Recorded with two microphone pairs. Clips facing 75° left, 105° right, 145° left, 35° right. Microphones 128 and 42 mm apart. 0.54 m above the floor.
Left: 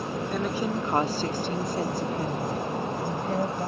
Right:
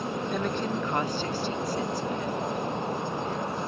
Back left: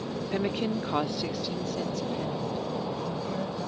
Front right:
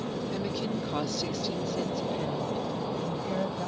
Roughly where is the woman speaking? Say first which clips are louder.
Left 2 dB, back left 7 dB; behind.